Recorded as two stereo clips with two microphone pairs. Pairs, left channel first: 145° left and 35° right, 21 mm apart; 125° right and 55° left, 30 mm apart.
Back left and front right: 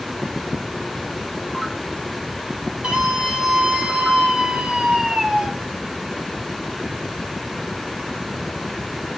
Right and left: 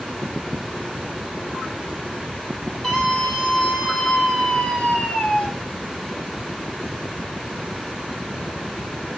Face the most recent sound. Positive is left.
turn(degrees=-60)